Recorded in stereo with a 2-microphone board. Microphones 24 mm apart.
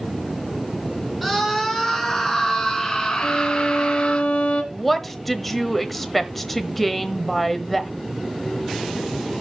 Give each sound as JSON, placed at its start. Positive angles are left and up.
{"t": 1.2, "sound": "a scream", "side_deg": -5, "distance_m": 4.0}
{"t": 3.2, "sound": "a violin", "side_deg": 65, "distance_m": 2.0}
{"t": 4.7, "sound": "a woman speaking", "side_deg": 10, "distance_m": 1.1}